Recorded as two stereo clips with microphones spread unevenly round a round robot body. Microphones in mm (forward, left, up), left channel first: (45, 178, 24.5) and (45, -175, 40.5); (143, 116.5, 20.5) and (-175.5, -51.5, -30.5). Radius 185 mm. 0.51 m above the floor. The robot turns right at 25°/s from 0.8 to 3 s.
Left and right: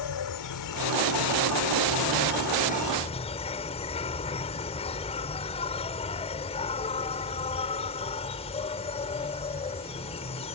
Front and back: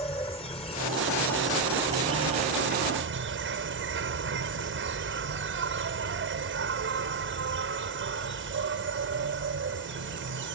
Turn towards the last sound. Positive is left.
turn(degrees=160)